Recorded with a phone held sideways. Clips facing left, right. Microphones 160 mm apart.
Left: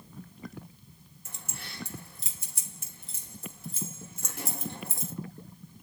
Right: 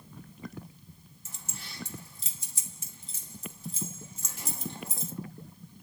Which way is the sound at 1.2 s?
60° left (ahead or behind).